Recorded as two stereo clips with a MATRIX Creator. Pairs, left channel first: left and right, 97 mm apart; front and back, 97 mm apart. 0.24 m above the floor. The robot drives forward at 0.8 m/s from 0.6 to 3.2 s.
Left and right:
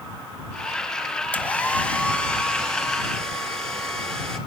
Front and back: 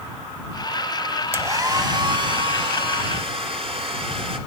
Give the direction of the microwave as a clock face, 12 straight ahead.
No microwave in this recording.